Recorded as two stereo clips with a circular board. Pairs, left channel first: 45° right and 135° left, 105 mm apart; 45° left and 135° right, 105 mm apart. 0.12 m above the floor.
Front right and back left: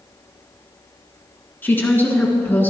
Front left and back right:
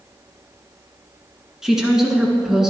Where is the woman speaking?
60° right, 1.6 m.